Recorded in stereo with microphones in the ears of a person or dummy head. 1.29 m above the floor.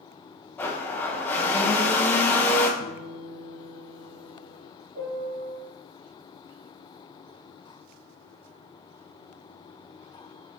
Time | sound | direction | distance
0.6 | a blender | 20° left (ahead or behind) | 0.6 m
2.8 | a guitar | 50° left (ahead or behind) | 0.6 m
5.0 | a piano | 90° right | 2 m